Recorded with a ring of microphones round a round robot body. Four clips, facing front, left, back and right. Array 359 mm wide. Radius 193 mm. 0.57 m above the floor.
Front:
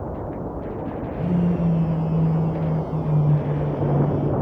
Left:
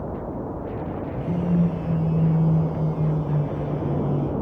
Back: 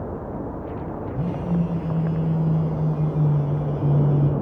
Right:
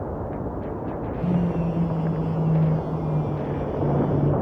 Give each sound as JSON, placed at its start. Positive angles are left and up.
{"t": 1.1, "sound": "a phone buzzing", "azimuth_deg": -165, "distance_m": 2.5}